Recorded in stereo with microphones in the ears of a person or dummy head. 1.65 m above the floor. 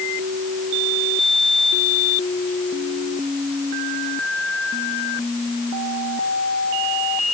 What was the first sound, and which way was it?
Only background noise.